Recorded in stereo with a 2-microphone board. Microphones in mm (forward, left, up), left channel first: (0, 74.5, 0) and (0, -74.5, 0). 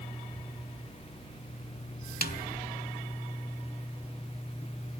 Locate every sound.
2.2 s a snare drum: 80° left, 0.6 m